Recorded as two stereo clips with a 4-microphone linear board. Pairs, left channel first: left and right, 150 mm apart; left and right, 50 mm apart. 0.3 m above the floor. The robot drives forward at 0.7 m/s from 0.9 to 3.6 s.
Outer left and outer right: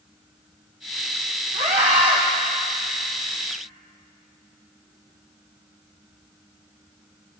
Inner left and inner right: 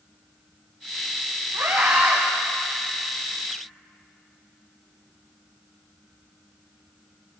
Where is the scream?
60° right (ahead or behind), 1.7 m; by 2.2 s 50° right (ahead or behind), 1.9 m.